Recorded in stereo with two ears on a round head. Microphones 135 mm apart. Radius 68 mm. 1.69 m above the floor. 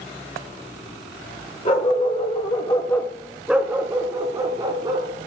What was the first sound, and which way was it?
A dog barking, 40° left (ahead or behind).